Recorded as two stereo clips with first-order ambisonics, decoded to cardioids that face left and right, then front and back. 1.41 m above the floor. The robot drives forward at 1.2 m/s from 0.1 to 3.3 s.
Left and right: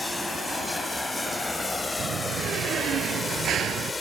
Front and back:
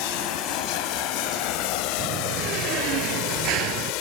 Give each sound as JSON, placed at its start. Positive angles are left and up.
{"t": 0.0, "sound": "running water", "azimuth_deg": 5}
{"t": 2.0, "sound": "a door slam", "azimuth_deg": -140}